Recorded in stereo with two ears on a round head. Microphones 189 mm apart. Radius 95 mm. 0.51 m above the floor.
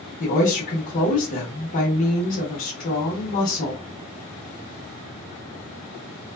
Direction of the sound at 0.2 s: 35° left (ahead or behind).